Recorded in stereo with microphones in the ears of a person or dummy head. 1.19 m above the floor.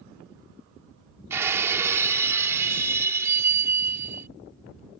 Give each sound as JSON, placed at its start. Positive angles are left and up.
{"t": 1.3, "sound": "breaking glass", "side_deg": -15}